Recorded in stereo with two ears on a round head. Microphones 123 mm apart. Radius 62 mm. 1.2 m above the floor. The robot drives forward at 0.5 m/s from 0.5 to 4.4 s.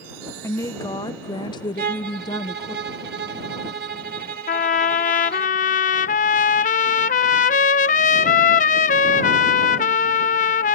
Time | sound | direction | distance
0.4 | a woman speaking | 20° left (ahead or behind) | ?
1.8 | a violin | 65° right (ahead or behind) | ?
4.5 | a trumpet | 55° left (ahead or behind) | ?